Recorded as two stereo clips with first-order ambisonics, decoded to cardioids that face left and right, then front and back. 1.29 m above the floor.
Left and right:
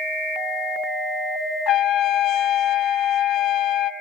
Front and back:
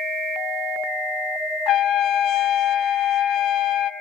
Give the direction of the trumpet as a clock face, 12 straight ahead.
11 o'clock.